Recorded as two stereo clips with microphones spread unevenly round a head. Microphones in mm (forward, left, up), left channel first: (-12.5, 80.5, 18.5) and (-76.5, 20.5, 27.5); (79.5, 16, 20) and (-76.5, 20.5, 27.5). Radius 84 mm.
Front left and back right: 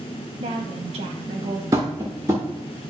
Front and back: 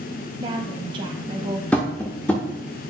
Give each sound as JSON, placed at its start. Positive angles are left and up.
{"t": 0.4, "sound": "a woman speaking", "azimuth_deg": -120, "distance_m": 0.7}
{"t": 1.7, "sound": "tapping", "azimuth_deg": -85, "distance_m": 0.7}